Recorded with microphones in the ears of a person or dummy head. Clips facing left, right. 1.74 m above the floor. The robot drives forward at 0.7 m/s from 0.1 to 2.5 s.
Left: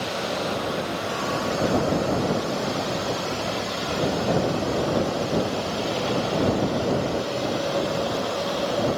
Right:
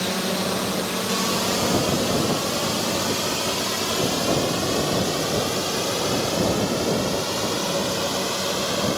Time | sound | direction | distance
0.0 | a drone | 70° right (ahead or behind) | ?